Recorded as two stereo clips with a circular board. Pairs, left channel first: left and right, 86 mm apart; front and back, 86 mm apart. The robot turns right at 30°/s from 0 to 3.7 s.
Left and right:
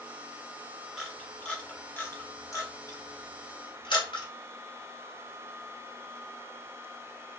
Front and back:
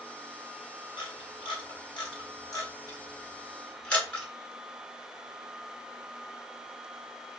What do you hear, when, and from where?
1.0 s a camera shutter: 5° right, 1.1 m; by 4.3 s 75° left, 1.1 m